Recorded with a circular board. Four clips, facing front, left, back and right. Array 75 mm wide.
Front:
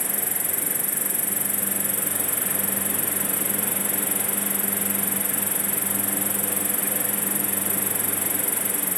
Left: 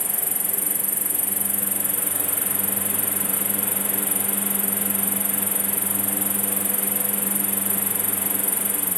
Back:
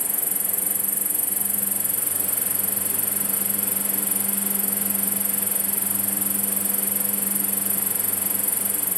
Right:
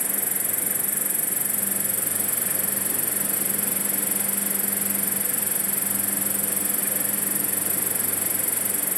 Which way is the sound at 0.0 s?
40° right.